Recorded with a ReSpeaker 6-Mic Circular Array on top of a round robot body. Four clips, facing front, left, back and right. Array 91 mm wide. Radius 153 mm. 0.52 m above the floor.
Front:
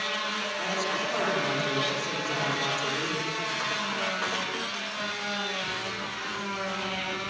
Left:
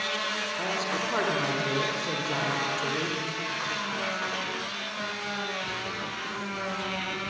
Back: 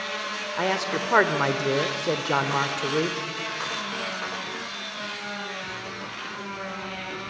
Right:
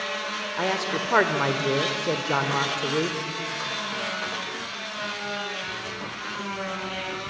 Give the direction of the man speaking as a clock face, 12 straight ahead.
5 o'clock.